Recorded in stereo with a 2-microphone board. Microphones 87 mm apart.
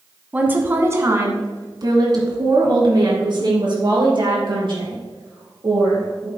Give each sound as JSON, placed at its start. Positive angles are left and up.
{"t": 0.3, "sound": "a woman speaking", "side_deg": -15, "distance_m": 1.2}